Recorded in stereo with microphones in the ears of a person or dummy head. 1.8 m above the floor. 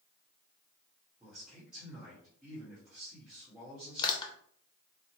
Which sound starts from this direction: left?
Crushing, at 4.0 s.